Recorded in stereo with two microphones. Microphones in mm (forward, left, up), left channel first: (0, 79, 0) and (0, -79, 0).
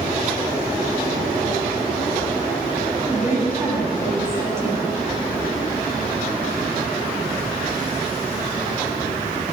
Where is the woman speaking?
15° right (ahead or behind), 1.3 m.